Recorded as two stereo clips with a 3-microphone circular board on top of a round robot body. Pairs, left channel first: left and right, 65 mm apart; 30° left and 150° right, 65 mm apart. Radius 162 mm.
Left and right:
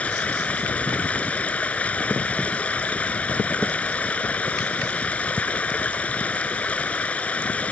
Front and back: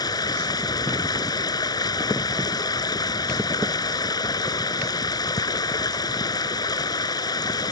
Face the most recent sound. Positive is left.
turn(degrees=20)